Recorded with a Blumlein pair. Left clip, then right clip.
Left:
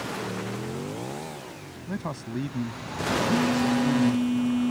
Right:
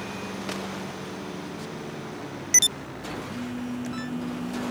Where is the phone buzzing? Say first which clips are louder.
Left 10 dB; 25° left.